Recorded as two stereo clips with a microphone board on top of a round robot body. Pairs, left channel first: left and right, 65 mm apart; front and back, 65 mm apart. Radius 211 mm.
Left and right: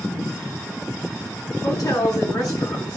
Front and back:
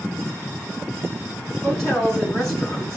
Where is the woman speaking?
85° left, 6.5 m.